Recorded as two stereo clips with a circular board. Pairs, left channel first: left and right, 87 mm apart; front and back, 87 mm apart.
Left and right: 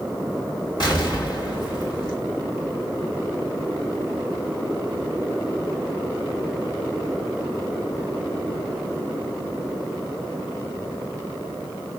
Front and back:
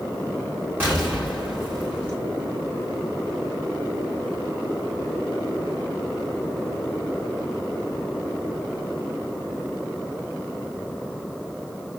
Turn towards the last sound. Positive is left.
turn(degrees=115)